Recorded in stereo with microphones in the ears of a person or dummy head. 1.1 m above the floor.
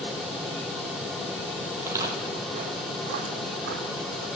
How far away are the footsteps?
About 1.7 m.